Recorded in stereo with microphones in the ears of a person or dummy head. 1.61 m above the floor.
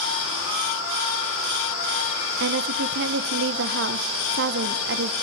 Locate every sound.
2.4 s a woman speaking: 65° right (ahead or behind), 1.2 m